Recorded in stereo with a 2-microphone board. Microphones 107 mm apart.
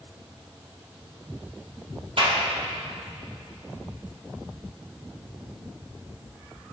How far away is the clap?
About 5 m.